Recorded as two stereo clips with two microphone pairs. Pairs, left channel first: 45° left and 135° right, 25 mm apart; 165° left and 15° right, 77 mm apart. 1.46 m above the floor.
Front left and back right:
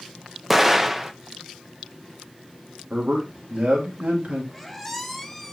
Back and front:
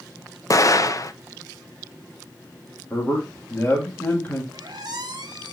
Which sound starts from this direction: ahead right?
A squeak, at 4.5 s.